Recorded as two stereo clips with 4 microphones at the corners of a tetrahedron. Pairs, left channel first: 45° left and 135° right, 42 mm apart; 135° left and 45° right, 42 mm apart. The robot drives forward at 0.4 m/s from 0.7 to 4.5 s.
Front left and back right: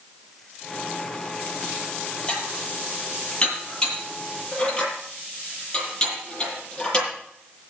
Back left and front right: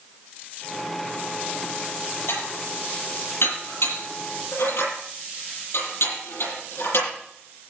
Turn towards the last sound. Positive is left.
turn(degrees=120)